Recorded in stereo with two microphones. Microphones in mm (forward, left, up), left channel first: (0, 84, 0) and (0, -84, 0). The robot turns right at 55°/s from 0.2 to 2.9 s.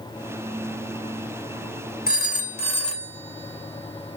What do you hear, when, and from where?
2.1 s a phone ringing: 70° left (ahead or behind), 1.3 m; by 4.2 s 30° left (ahead or behind), 1.3 m